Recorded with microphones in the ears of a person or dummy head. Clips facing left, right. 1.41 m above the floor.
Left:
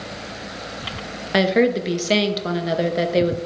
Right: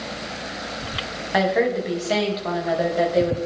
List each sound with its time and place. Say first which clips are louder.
1.3 s a woman speaking: left 3 dB; 40° left (ahead or behind), 0.8 m